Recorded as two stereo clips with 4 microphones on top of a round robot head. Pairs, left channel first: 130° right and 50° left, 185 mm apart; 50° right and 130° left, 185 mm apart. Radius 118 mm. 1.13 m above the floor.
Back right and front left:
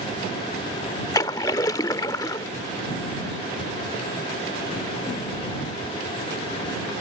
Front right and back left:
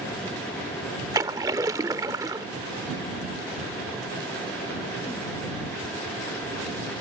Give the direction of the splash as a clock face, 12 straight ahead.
6 o'clock.